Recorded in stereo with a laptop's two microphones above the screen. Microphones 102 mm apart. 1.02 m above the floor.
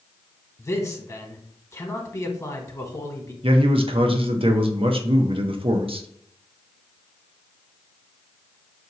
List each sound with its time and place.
0.6 s a man speaking: 30° left (ahead or behind), 1.0 m
3.4 s a man speaking: 65° right (ahead or behind), 0.5 m